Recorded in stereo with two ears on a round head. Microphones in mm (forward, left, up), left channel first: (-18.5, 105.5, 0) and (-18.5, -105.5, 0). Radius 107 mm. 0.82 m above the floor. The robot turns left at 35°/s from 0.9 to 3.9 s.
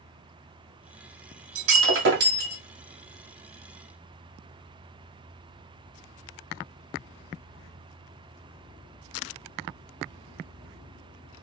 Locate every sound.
1.6 s breaking glass: 105° right, 1.9 m; by 2.6 s 140° right, 1.9 m